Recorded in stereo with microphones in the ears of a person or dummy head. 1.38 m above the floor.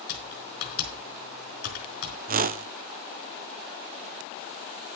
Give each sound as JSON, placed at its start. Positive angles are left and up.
{"t": 0.1, "sound": "typing on a keyboard", "side_deg": 55, "distance_m": 4.5}
{"t": 2.3, "sound": "a whoosh", "side_deg": -40, "distance_m": 0.5}